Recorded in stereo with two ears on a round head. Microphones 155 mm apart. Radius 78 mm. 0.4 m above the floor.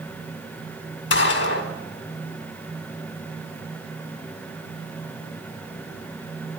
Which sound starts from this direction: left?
A gunshot, at 1.1 s.